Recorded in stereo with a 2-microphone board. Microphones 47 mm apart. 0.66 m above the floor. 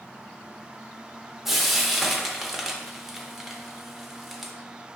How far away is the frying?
About 0.8 m.